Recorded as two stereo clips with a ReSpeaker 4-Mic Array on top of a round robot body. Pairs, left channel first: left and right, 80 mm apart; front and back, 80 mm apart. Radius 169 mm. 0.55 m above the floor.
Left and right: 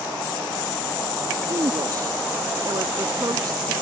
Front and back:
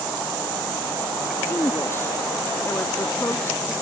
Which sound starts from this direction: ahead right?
A woman speaking, at 1.5 s.